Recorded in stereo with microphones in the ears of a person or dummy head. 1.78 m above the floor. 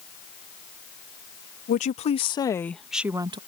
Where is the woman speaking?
45° left (ahead or behind); by 3.4 s 25° right (ahead or behind).